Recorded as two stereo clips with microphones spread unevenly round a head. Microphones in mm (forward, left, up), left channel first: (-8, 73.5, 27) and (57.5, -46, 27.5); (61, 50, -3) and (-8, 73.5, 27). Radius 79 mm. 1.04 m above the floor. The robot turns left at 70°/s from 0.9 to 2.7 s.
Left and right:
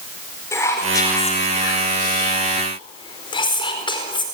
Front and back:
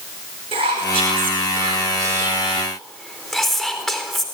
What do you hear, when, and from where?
0.5 s whispering: 170° right, 4.5 m; by 4.2 s 65° left, 4.5 m